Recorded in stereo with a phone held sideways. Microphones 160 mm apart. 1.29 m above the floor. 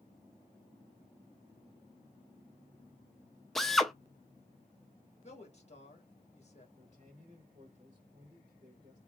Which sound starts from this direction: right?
A man speaking, at 6.8 s.